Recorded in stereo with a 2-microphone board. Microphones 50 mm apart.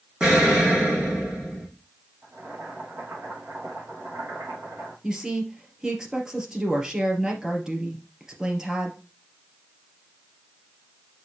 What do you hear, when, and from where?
0.2 s an explosion: 15° right (ahead or behind), 3 m
2.2 s boiling: 45° right (ahead or behind), 4.5 m
5.0 s a woman speaking: 10° right (ahead or behind), 3 m